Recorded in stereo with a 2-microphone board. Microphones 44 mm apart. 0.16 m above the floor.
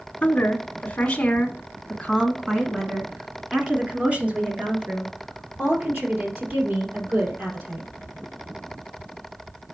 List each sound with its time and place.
0.2 s a woman speaking: 35° left (ahead or behind), 1.3 m; by 7.9 s 45° right (ahead or behind), 3.5 m